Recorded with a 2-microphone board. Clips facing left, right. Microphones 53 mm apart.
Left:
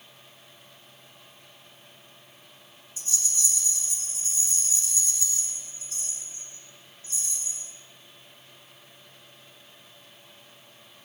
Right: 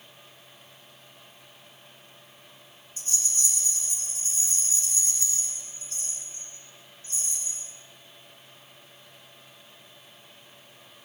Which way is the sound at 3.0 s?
45° right (ahead or behind).